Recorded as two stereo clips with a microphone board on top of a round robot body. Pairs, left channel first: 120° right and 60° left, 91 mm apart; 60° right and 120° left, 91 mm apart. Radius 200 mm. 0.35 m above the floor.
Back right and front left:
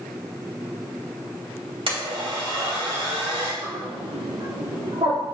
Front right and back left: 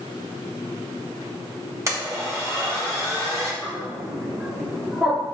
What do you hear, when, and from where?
1.9 s a blender: 65° left, 3 m
3.6 s a bird: 45° left, 2.5 m